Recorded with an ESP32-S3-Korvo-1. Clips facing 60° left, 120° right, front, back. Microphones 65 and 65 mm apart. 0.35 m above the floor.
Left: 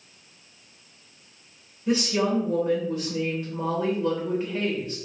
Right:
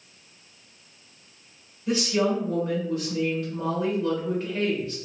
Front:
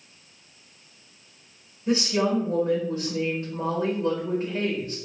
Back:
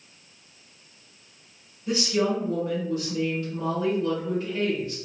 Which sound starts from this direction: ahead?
A woman speaking, at 1.9 s.